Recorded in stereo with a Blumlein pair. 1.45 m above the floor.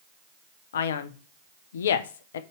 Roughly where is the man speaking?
Ahead left.